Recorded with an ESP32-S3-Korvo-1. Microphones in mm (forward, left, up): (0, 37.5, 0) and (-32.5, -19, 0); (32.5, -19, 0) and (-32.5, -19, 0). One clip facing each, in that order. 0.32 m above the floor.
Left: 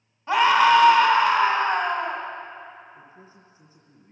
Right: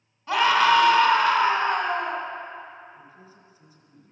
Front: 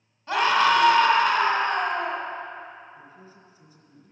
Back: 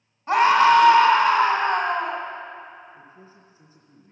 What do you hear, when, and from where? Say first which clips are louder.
0.3 s a scream: left 2 dB, back 5 dB; 120° left, 2.5 m
2.9 s a man speaking: even, even; 115° left, 4.5 m